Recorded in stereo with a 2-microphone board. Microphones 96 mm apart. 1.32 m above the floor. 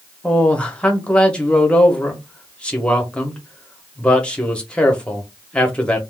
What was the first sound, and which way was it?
A man speaking, 10° left (ahead or behind).